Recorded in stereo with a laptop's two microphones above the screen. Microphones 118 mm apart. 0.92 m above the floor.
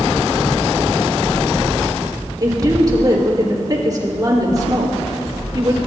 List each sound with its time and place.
2.4 s a woman speaking: 35° right (ahead or behind), 3.5 m